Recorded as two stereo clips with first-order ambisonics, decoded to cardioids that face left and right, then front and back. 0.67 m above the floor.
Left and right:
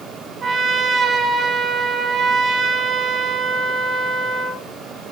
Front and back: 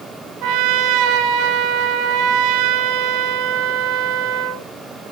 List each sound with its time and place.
0.4 s a trumpet: 155° right, 2 m